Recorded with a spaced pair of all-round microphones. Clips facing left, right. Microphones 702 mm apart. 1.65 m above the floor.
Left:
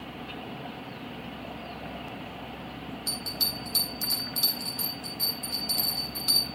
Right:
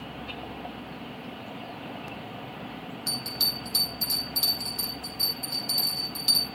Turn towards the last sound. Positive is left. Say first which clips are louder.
# right 1 dB
turn(degrees=-65)  # may be behind; listen again after turning